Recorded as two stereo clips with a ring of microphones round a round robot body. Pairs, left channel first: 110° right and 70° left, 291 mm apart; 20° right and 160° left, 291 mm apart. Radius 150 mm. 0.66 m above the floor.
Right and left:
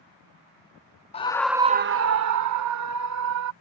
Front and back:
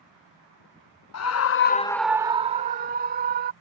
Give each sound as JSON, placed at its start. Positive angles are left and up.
{"t": 1.1, "sound": "a scream", "azimuth_deg": -45}